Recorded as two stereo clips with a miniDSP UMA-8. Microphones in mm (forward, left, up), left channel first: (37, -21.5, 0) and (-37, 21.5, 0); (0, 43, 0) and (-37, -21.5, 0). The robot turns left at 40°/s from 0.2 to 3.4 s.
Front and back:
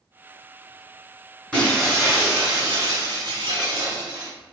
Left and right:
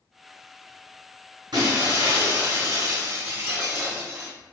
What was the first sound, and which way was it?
Breaking glass, 105° right.